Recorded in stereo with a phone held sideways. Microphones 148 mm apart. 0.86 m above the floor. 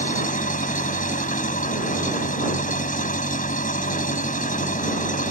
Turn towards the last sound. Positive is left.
turn(degrees=65)  # may be behind; listen again after turning